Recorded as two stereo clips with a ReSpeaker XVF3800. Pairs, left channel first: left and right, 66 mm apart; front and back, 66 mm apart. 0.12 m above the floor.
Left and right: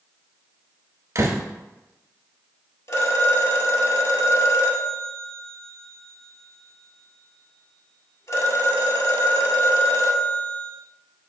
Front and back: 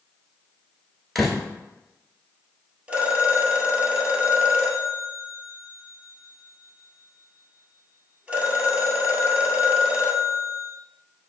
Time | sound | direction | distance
1.1 | a door slam | 90° right | 1.2 m
2.9 | a phone ringing | 110° left | 1.4 m